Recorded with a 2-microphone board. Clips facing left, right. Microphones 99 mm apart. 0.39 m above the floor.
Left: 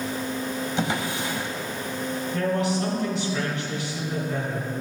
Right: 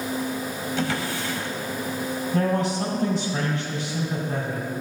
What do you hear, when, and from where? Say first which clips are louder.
0.8 s a drawer: right 1 dB; 20° left (ahead or behind), 1.0 m
2.3 s a man speaking: right 1 dB; 45° right (ahead or behind), 3 m